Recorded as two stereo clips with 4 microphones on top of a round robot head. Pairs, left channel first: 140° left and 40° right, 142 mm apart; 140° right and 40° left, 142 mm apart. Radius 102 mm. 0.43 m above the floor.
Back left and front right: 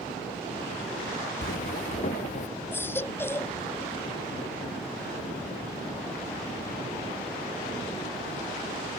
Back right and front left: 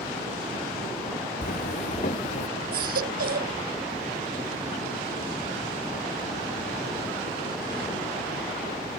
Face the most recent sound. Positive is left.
turn(degrees=60)